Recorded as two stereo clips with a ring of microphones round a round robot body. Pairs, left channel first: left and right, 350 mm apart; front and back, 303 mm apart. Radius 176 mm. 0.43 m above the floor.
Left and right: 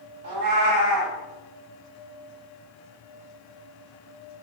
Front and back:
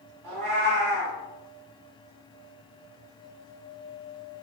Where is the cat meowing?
135° right, 0.6 m.